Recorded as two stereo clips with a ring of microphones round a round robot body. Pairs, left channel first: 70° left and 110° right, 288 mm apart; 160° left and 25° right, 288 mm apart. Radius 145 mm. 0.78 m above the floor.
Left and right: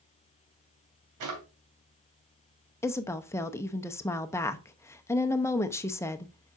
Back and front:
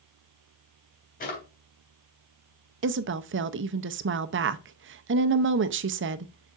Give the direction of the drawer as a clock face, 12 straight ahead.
5 o'clock.